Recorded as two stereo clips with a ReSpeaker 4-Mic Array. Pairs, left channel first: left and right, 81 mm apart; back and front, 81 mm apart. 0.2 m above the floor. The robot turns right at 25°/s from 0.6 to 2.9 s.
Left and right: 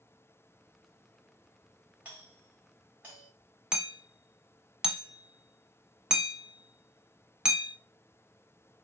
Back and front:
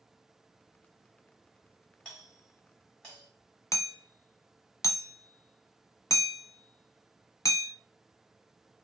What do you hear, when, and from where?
2.0 s a doorbell: 140° right, 1.7 m; by 3.3 s 115° right, 1.7 m
3.7 s hammering: 165° right, 0.6 m